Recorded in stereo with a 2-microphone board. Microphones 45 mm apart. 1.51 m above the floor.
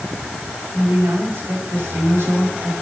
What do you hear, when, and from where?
0.7 s a woman speaking: 60° right (ahead or behind), 6.5 m